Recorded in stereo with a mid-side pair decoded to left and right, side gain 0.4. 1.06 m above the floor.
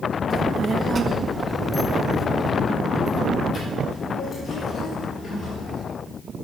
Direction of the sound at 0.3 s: 55° right.